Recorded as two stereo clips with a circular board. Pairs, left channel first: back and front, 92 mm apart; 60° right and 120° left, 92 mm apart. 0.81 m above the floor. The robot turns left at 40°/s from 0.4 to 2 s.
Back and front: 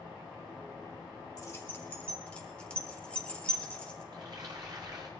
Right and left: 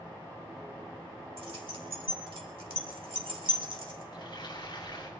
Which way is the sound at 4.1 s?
35° right.